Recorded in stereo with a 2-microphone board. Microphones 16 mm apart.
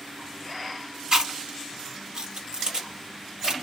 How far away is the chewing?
About 1.6 m.